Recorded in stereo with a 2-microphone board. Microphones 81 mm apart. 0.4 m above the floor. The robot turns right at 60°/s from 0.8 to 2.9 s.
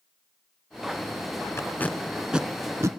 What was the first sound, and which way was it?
Tape being pulled, 35° left (ahead or behind).